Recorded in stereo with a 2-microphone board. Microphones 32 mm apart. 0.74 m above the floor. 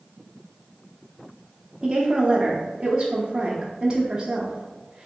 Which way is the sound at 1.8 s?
25° right (ahead or behind).